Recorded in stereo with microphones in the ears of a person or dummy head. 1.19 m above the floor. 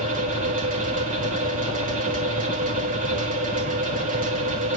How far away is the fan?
About 2 m.